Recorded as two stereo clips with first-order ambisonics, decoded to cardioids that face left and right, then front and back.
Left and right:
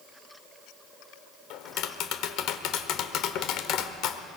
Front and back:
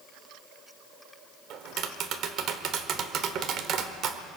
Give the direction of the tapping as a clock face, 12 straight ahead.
8 o'clock.